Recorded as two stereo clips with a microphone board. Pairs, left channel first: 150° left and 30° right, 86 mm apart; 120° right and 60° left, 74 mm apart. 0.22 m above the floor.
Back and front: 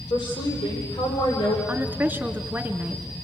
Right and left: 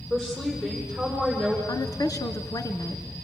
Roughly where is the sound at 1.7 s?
Right.